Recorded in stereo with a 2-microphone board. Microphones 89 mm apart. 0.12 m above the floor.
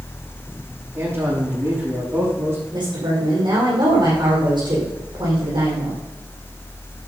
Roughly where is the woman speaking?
Right.